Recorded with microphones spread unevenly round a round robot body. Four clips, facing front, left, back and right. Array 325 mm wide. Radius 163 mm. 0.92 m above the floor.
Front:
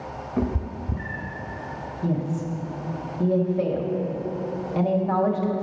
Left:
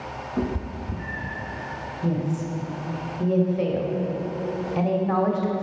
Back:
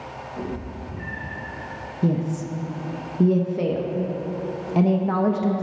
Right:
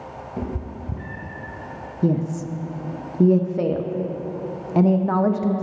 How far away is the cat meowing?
About 0.7 m.